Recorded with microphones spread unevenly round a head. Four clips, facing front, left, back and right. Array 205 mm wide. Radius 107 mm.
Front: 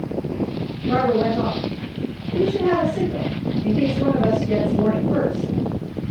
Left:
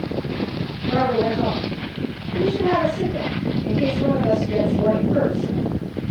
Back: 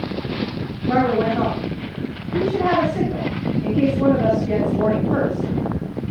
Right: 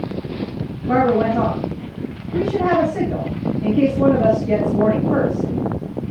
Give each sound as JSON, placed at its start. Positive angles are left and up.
{"t": 0.9, "sound": "a woman speaking", "azimuth_deg": -90, "distance_m": 8.0}